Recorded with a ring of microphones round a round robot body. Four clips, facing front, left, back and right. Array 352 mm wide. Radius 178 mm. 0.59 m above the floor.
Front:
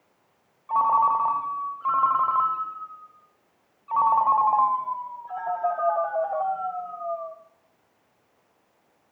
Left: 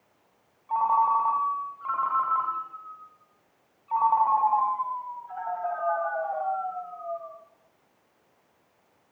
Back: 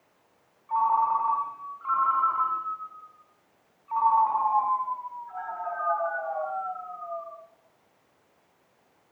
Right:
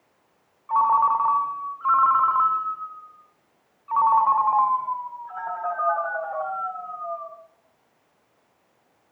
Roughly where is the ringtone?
Ahead right.